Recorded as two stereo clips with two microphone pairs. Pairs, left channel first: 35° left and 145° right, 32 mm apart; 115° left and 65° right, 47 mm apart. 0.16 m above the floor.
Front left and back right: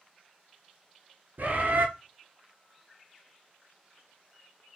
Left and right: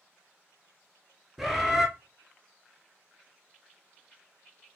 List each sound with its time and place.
1.4 s a bird: 155° right, 0.7 m